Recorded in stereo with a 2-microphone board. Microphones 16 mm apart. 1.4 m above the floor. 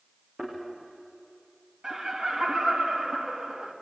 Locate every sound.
0.4 s a thud: 40° right (ahead or behind), 8.5 m
1.8 s laughter: 50° right (ahead or behind), 2.5 m